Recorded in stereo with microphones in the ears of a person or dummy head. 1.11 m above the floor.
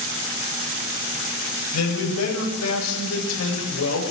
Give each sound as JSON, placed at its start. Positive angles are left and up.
{"t": 1.7, "sound": "a man speaking", "side_deg": 85, "distance_m": 7.5}